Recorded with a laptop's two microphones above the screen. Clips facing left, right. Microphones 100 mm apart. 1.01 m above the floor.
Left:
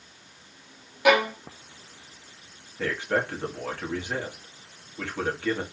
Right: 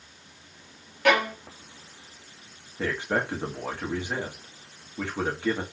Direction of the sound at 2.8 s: 15° right (ahead or behind).